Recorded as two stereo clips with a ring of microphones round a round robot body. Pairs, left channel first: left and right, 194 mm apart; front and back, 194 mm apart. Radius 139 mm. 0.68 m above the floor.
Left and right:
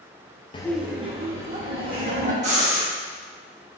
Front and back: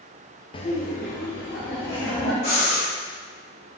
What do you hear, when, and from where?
0.5 s laughter: 45° left, 0.5 m; by 2.3 s 50° right, 2 m
2.4 s breathing: 50° right, 1.5 m